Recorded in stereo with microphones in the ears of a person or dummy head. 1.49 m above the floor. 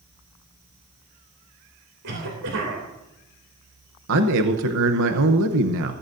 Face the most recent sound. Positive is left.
turn(degrees=-70)  # may be behind; listen again after turning